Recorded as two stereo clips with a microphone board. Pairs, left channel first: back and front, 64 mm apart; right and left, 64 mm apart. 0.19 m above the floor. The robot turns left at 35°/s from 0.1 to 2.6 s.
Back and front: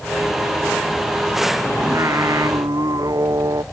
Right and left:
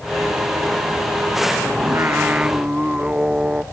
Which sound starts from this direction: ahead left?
Singing, at 1.8 s.